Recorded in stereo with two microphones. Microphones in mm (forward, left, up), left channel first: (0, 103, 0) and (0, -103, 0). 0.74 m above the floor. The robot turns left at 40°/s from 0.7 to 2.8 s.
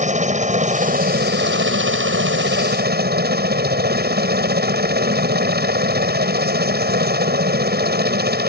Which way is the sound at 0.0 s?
40° right.